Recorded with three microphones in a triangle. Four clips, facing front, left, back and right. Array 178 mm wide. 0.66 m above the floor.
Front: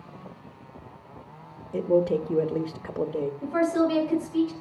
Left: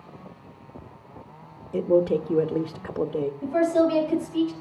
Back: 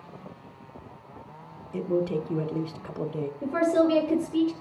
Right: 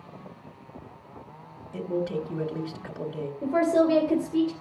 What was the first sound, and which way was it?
A man speaking, 55° left.